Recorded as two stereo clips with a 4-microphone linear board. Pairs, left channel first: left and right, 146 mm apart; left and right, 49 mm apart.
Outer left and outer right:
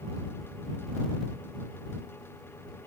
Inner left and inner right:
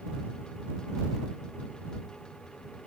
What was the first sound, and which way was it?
Only background noise.